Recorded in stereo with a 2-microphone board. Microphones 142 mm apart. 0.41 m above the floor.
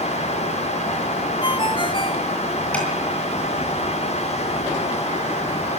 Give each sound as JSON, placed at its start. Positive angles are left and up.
{"t": 1.4, "sound": "a ringtone", "side_deg": 35, "distance_m": 1.4}
{"t": 2.7, "sound": "tapping", "side_deg": 10, "distance_m": 9.0}